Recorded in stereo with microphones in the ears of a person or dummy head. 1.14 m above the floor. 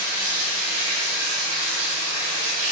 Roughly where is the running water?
Right.